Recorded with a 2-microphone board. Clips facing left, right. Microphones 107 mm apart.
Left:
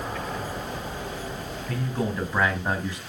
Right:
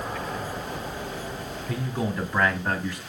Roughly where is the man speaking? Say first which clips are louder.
Left 1 dB; centre.